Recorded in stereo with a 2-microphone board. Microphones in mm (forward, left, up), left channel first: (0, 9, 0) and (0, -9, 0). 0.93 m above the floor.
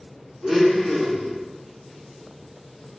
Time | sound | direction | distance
0.4 | a blender | 5° right (ahead or behind) | 1.4 m